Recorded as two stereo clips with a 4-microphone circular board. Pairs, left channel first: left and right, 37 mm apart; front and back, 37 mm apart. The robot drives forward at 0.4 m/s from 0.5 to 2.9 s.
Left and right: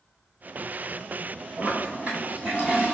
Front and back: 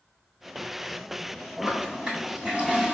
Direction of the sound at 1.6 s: 115° right.